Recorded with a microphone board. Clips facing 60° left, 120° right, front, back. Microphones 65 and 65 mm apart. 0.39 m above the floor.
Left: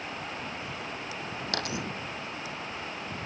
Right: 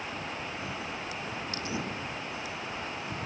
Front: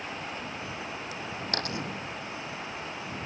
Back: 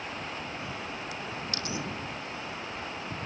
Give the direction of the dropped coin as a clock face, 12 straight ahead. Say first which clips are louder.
Left 3 dB, front 4 dB; 11 o'clock.